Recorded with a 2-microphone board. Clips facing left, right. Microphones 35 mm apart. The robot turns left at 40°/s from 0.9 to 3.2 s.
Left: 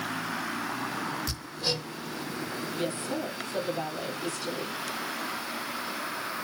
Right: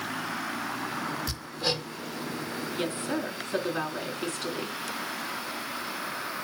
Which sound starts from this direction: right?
A woman speaking, at 2.7 s.